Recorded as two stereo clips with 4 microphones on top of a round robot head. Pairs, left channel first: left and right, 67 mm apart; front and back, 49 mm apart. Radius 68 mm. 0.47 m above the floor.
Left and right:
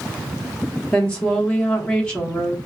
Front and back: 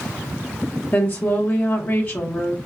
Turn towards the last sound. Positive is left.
turn(degrees=30)